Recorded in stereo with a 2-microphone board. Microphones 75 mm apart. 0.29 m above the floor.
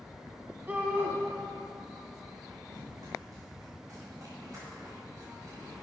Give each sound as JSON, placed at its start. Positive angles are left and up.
{"t": 0.7, "sound": "a shout", "side_deg": -20, "distance_m": 1.9}
{"t": 2.7, "sound": "running footsteps", "side_deg": -50, "distance_m": 2.0}